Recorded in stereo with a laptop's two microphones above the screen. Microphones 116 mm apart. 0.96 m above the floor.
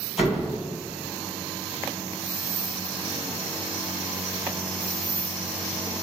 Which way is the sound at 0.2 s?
10° right (ahead or behind).